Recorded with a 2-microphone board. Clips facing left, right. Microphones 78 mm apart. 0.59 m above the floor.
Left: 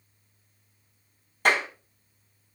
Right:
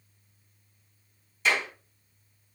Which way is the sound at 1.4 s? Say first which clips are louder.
Left 3 dB; 60° left (ahead or behind).